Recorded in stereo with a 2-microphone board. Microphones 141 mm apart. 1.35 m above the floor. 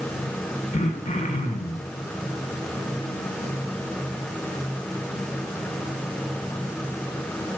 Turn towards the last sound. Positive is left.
turn(degrees=50)  # may be behind; listen again after turning